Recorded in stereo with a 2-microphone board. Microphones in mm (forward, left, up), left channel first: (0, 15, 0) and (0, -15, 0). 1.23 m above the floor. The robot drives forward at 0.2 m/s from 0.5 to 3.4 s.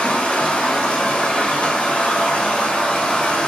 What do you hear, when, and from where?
0.0 s running water: 70° left (ahead or behind), 1.7 m; by 3.5 s 55° left (ahead or behind), 2 m